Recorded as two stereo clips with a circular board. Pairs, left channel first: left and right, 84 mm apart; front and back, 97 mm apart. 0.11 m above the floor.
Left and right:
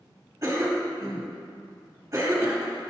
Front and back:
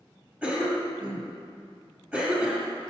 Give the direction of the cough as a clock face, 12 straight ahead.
4 o'clock.